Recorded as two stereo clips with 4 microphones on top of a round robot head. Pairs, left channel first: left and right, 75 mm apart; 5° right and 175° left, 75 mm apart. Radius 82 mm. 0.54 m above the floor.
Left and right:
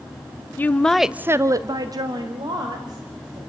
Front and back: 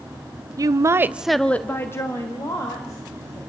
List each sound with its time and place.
0.6 s a woman speaking: 150° left, 1.0 m; by 3.4 s 55° right, 3 m